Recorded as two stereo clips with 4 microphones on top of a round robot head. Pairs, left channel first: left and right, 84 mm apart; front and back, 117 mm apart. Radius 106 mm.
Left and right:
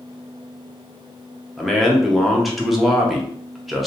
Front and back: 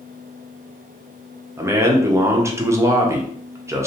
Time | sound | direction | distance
1.6 | a man speaking | straight behind | 0.6 m